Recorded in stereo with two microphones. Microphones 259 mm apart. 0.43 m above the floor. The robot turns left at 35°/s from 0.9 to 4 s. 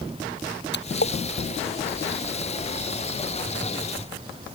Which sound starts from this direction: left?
A splash, at 0.7 s.